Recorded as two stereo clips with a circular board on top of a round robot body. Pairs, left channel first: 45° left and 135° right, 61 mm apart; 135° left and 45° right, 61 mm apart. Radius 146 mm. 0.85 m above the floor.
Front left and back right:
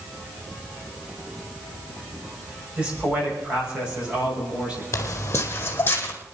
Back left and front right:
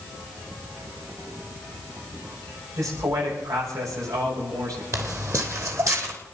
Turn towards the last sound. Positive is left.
turn(degrees=-10)